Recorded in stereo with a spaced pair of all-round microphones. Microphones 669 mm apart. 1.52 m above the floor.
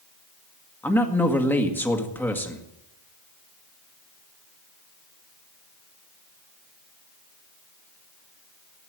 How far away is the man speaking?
About 1.8 m.